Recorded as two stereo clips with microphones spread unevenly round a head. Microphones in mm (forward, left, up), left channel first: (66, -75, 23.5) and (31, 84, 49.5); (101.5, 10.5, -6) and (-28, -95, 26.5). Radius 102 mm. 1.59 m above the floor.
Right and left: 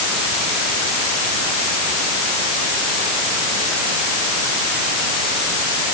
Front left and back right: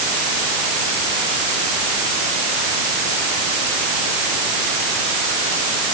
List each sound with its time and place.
Only background noise.